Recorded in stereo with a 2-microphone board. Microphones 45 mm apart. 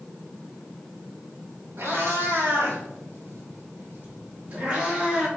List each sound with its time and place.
1.8 s a cat meowing: 65° right (ahead or behind), 1.2 m; by 5.3 s 20° right (ahead or behind), 1.3 m